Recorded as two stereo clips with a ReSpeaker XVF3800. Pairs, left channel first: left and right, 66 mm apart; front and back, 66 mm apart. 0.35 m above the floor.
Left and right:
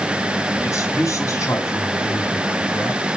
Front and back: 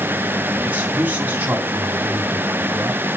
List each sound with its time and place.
0.6 s a man speaking: 115° left, 3 m